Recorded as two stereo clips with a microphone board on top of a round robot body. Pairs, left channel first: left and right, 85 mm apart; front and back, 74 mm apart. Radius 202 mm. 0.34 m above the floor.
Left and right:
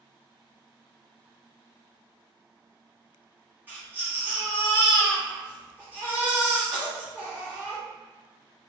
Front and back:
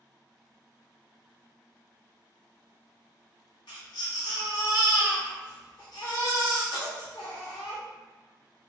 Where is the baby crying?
20° right, 1.3 m.